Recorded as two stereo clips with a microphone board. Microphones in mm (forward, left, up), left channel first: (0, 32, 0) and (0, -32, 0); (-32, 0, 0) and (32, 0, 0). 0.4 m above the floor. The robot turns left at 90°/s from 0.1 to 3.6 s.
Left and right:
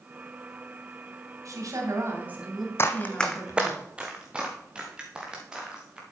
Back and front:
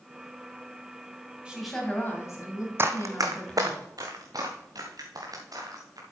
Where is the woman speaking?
70° right, 2.5 m; by 3.8 s 95° left, 2.5 m.